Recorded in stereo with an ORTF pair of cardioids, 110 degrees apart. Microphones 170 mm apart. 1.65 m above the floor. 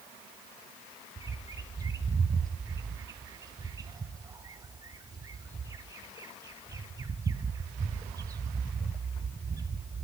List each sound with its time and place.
1.2 s a bird: 20° right, 0.7 m